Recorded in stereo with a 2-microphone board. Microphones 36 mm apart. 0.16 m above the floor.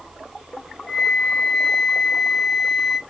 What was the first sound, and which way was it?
A flute, 5° right (ahead or behind).